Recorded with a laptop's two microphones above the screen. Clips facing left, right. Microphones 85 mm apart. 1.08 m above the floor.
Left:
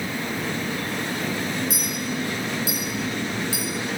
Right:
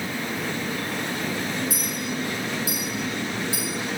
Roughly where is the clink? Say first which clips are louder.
Left 1 dB; left.